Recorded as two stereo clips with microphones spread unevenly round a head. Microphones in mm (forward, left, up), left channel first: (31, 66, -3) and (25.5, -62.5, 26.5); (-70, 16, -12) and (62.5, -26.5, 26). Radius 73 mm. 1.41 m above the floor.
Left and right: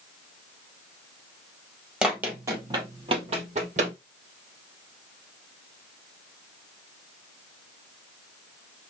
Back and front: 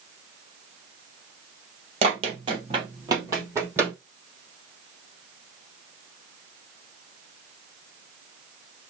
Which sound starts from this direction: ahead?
Running footsteps, at 2.0 s.